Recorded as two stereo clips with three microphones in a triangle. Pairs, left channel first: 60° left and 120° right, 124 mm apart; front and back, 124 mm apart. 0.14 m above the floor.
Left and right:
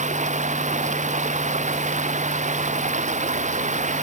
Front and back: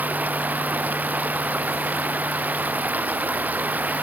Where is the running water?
105° right.